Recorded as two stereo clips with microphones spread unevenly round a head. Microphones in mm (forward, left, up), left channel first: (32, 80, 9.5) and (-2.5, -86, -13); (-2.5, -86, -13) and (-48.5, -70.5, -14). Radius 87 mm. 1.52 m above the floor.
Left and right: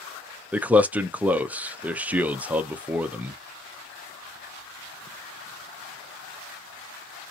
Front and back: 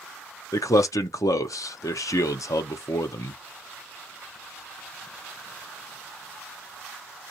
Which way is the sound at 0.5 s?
20° right.